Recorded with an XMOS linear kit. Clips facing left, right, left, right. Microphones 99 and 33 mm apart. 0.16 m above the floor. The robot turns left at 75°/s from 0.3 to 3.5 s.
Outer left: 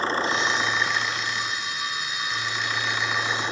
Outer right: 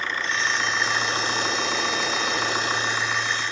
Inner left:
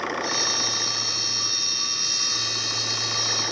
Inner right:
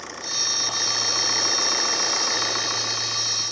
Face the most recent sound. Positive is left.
turn(degrees=155)